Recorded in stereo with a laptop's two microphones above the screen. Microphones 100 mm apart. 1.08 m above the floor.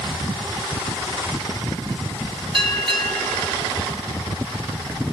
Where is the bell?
55° right (ahead or behind), 5.5 m.